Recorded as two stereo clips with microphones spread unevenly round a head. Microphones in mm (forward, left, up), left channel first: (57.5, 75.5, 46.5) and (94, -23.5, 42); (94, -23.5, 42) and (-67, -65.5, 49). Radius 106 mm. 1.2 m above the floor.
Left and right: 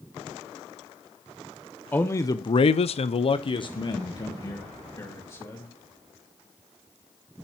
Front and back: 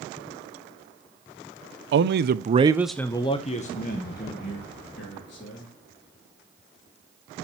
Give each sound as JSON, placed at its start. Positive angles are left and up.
{"t": 1.9, "sound": "a man speaking", "azimuth_deg": -170, "distance_m": 0.8}